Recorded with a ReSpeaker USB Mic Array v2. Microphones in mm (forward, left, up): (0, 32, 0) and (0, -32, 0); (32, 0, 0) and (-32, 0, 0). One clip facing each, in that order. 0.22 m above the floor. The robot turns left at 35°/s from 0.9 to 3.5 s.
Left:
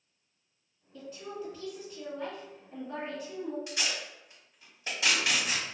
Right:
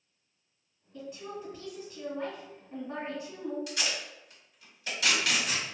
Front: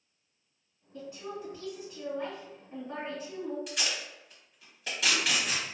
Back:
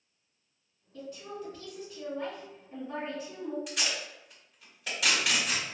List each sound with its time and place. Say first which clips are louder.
0.9 s a woman speaking: even, front 1 dB; 5° right, 1.6 m; by 3.6 s 95° right, 1.6 m
3.7 s tape being pulled: even, back 1 dB; 95° left, 1.6 m